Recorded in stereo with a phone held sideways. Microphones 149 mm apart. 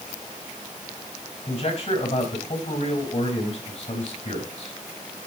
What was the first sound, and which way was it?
A man speaking, 55° left (ahead or behind).